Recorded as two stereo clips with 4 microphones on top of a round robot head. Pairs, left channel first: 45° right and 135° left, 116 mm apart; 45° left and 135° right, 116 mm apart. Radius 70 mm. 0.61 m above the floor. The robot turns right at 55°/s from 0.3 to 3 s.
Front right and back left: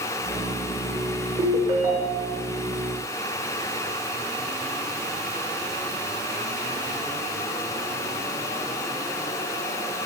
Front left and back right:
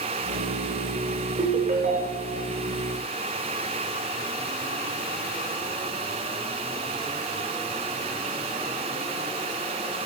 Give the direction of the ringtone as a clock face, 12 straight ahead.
6 o'clock.